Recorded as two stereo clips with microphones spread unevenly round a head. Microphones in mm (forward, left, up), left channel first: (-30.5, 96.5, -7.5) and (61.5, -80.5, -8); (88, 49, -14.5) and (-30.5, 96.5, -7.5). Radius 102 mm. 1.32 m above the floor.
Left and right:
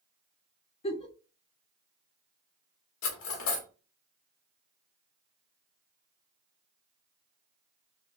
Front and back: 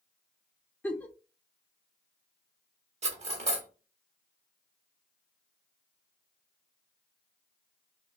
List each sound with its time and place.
0.8 s a giggle: 60° left, 0.6 m
3.0 s cutlery clinking: 130° left, 1.1 m